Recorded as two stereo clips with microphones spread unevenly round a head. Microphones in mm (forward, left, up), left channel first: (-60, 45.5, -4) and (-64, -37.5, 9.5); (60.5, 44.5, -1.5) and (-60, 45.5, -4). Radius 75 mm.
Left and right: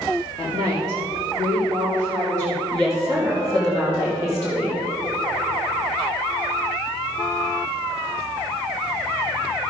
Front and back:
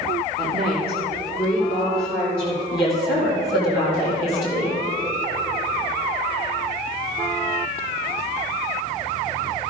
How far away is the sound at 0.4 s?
About 2 m.